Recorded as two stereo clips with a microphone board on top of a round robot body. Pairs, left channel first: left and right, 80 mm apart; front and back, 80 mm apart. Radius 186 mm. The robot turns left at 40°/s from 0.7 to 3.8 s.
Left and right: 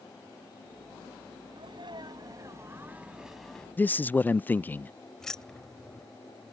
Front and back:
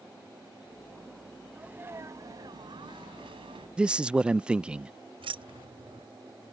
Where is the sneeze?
105° right; by 3.7 s 170° left.